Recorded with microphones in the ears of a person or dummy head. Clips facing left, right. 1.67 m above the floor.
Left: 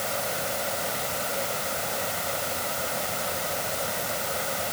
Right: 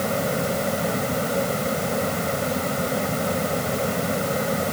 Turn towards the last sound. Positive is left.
turn(degrees=-55)  # may be behind; listen again after turning